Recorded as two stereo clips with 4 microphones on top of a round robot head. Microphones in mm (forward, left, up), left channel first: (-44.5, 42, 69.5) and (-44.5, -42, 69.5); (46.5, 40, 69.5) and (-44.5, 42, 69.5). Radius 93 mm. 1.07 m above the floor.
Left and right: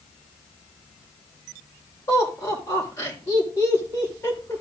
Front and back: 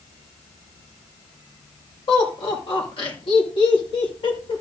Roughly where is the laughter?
Ahead left.